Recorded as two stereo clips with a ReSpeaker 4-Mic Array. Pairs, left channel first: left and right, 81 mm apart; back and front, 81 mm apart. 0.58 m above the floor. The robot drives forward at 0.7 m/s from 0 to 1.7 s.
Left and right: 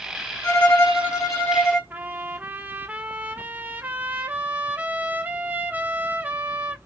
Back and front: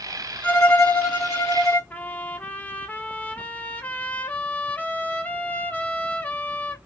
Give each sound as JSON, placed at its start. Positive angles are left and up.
{"t": 0.4, "sound": "a violin", "azimuth_deg": 115, "distance_m": 1.4}
{"t": 1.9, "sound": "a trumpet", "azimuth_deg": -135, "distance_m": 0.5}